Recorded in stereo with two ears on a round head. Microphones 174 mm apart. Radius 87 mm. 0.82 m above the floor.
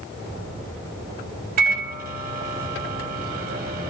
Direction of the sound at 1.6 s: 45° right (ahead or behind).